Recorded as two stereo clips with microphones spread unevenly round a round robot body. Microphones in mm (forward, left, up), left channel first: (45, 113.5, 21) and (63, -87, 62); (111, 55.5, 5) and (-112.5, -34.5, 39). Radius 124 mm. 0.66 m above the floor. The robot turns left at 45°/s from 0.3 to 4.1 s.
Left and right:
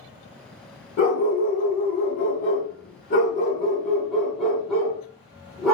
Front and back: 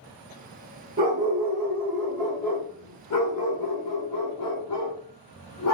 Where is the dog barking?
145° left, 1.8 m; by 5.7 s 5° left, 1.8 m.